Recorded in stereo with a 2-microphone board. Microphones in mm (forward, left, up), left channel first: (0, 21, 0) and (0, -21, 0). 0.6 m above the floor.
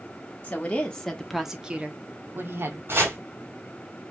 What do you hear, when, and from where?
0.4 s a woman speaking: 30° left (ahead or behind), 1.3 m; by 2.8 s 60° right (ahead or behind), 1.3 m
2.9 s chopping: 60° right (ahead or behind), 3 m